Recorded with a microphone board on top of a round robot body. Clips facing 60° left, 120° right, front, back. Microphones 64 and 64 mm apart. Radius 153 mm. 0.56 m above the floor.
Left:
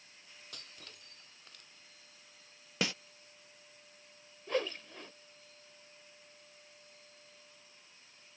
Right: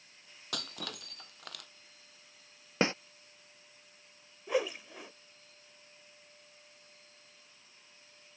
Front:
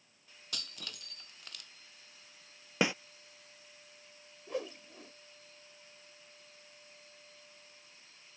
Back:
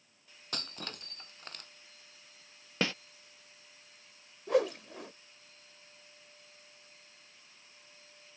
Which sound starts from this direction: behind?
A whoosh, at 4.5 s.